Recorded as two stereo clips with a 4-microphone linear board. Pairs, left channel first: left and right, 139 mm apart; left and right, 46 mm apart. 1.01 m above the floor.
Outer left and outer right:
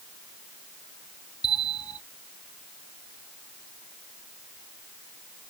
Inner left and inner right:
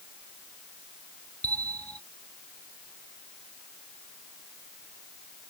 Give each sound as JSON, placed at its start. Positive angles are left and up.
{"t": 1.4, "sound": "a bell", "side_deg": 25}